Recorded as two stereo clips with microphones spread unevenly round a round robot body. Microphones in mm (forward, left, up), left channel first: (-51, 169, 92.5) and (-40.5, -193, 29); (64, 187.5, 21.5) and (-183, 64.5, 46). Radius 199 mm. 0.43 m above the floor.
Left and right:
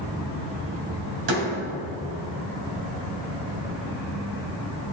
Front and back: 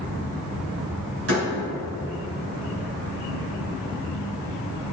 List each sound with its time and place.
1.3 s a door slam: 100° right, 2.5 m